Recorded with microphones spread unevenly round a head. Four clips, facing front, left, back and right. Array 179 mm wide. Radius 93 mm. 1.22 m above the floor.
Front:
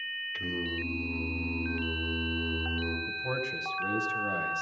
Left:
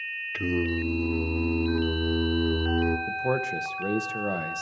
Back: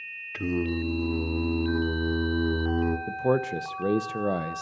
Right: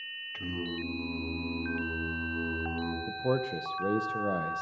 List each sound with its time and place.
0.3 s singing: 135° left, 1.4 m
3.1 s a man speaking: 175° left, 0.7 m